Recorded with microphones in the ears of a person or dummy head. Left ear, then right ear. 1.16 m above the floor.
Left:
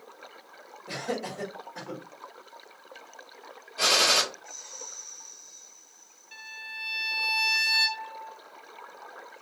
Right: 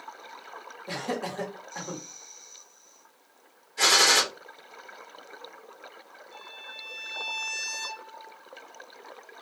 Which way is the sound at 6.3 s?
40° left (ahead or behind).